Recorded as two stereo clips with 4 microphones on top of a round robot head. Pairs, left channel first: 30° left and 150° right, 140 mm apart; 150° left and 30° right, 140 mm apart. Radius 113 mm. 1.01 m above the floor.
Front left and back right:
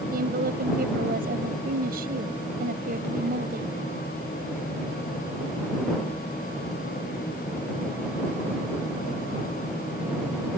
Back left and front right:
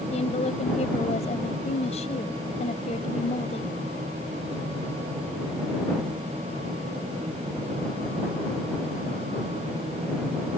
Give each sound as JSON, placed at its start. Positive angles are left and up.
{"t": 0.1, "sound": "a woman speaking", "azimuth_deg": -165}